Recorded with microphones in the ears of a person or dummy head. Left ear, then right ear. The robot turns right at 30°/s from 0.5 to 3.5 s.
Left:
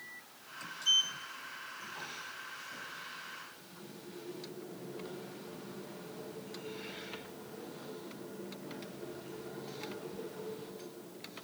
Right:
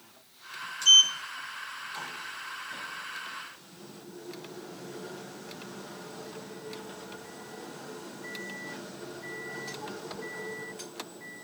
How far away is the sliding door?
About 0.7 m.